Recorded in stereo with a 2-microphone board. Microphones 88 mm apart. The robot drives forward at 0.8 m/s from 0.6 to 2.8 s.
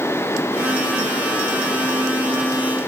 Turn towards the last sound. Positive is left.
No sound to turn to.